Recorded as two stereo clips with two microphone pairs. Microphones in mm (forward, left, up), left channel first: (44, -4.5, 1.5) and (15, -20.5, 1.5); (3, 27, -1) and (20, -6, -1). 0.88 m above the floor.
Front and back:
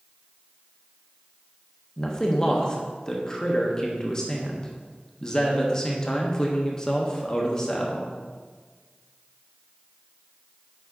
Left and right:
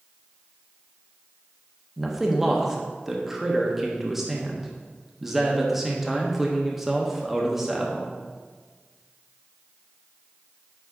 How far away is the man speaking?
About 0.9 m.